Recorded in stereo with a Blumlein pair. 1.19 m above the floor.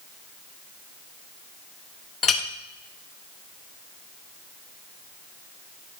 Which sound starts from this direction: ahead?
A clink, at 2.2 s.